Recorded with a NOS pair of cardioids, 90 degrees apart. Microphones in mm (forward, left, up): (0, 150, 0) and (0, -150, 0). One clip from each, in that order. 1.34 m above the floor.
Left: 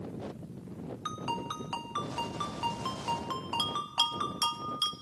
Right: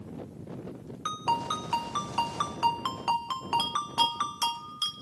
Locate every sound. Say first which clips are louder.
1.1 s a ringtone: right 7 dB; 30° right, 0.8 m
3.6 s a bell: right 1 dB; straight ahead, 1.2 m